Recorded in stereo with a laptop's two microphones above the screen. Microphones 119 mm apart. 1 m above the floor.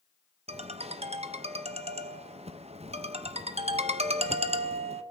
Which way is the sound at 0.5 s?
55° right (ahead or behind).